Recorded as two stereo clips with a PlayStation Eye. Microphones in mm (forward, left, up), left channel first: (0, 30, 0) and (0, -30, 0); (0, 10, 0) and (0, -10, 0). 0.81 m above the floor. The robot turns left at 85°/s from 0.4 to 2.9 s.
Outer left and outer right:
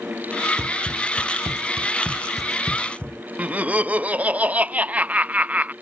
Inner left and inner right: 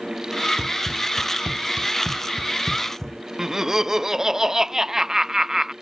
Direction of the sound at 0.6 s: 55° right (ahead or behind).